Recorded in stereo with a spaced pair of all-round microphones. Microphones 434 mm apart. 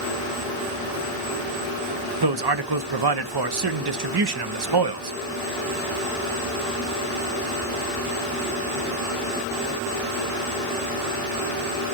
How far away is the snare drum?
No snare drum in this recording.